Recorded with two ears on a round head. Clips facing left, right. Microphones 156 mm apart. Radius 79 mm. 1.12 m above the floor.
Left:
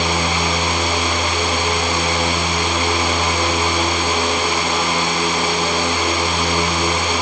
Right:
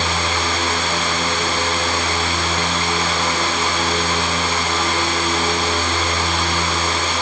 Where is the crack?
I don't hear a crack.